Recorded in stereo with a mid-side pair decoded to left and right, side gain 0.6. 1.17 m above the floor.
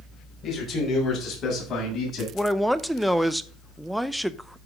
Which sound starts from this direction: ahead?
A man speaking, at 2.3 s.